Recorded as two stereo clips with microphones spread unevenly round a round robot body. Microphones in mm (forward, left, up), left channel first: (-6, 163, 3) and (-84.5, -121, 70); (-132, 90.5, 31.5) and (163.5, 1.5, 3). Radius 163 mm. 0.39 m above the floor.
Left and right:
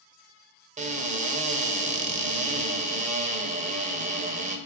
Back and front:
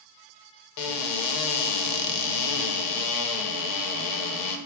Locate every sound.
0.8 s a cupboard door: straight behind, 0.6 m